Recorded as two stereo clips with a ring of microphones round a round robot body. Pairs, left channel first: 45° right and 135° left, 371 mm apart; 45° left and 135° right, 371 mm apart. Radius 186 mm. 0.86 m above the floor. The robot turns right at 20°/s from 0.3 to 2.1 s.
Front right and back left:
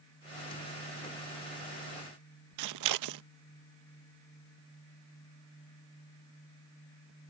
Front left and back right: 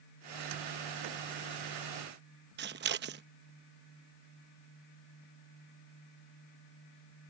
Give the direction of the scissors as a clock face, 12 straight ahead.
6 o'clock.